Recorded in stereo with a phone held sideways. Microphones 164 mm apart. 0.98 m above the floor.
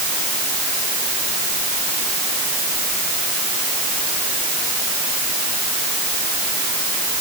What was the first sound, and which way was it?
Only background noise.